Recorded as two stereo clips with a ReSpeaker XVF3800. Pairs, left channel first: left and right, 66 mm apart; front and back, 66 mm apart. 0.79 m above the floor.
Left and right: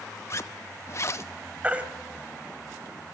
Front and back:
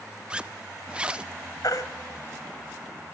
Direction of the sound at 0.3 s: 110° left.